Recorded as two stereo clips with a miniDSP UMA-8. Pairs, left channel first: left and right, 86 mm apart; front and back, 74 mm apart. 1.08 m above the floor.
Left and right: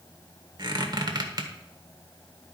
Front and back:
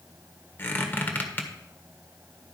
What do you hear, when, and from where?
0.6 s a squeak: 60° right, 1.4 m